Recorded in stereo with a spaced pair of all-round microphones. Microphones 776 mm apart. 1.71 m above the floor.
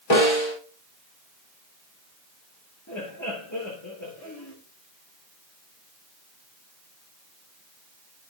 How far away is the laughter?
About 3 m.